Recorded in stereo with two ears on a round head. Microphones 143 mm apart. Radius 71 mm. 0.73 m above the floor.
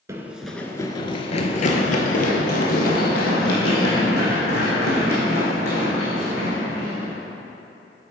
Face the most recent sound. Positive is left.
turn(degrees=75)  # may be behind; listen again after turning